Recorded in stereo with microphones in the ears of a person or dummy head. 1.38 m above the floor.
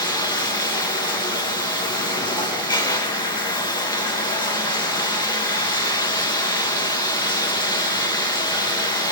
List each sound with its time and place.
0.0 s running water: 15° left (ahead or behind), 0.9 m